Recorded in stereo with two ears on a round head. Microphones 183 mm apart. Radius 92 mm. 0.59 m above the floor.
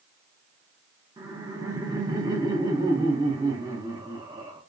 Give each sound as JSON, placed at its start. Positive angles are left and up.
{"t": 1.2, "sound": "laughter", "side_deg": -15, "distance_m": 0.6}